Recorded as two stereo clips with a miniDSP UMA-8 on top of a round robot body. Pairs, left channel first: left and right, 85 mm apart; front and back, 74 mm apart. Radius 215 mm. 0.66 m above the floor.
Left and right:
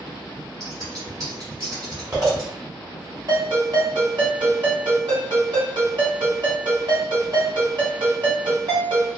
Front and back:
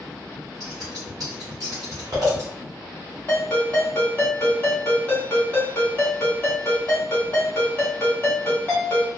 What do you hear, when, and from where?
0.6 s scissors: 145° right, 0.9 m
3.3 s a ringtone: 60° right, 1.7 m